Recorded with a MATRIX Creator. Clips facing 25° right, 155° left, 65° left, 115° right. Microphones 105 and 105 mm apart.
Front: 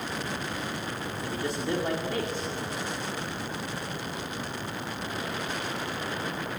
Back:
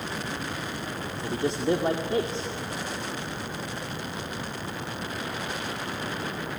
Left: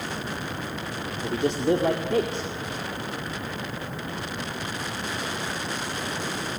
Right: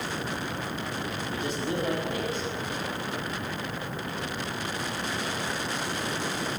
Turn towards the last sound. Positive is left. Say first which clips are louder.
# back 5 dB, left 10 dB
turn(degrees=95)